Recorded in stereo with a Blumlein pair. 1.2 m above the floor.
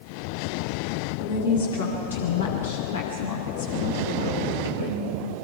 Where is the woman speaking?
65° left, 7 m; by 5.1 s 60° left, 4.5 m.